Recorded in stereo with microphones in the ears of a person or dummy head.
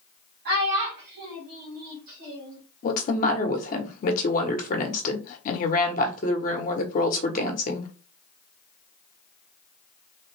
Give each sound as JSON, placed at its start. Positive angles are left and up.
{"t": 0.5, "sound": "a child speaking", "side_deg": -55, "distance_m": 1.4}
{"t": 2.8, "sound": "a woman speaking", "side_deg": 50, "distance_m": 1.3}